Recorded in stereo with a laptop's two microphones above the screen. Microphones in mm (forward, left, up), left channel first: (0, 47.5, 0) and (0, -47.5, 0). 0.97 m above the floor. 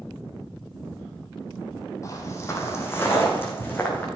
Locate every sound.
2.0 s footsteps: 35° left (ahead or behind), 2 m; by 4.1 s 20° left (ahead or behind), 4.5 m